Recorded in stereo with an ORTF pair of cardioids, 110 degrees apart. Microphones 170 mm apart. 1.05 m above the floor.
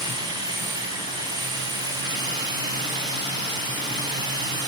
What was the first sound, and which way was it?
A machine running, 25° right.